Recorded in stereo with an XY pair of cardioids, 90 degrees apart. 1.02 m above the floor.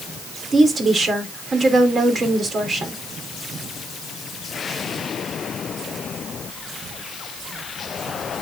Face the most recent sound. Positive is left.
turn(degrees=-45)